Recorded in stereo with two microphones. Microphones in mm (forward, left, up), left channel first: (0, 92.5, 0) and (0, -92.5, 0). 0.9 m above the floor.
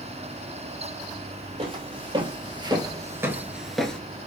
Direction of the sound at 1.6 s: 30° right (ahead or behind).